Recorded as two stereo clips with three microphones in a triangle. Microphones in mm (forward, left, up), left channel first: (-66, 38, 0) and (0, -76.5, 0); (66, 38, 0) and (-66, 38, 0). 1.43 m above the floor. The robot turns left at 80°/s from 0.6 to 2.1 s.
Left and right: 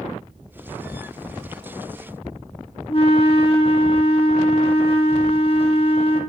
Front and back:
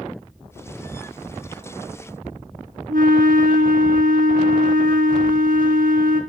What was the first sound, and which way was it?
A flute, 170° left.